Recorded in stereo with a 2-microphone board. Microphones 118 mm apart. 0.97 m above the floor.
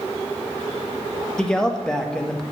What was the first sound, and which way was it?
A man speaking, 5° left (ahead or behind).